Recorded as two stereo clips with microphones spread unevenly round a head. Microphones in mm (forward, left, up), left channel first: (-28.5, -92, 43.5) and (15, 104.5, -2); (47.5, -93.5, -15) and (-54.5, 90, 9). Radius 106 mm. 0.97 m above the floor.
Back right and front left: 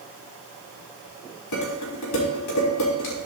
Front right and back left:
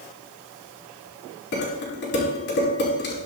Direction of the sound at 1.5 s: 105° right.